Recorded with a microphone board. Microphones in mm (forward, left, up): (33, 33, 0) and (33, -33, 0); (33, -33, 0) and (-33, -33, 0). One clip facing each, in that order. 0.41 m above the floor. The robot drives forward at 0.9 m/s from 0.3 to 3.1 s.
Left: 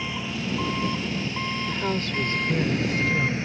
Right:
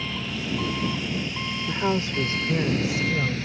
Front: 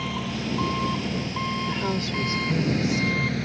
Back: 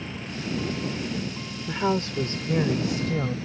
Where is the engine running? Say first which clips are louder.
Left 1 dB, front 5 dB; 15° left; by 3.5 s 25° left.